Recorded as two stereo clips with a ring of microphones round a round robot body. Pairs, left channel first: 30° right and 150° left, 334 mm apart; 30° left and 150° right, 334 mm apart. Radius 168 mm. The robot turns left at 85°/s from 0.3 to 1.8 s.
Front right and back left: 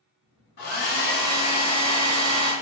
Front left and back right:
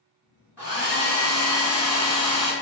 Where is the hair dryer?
70° right, 1.6 m; by 2.5 s 175° right, 1.6 m.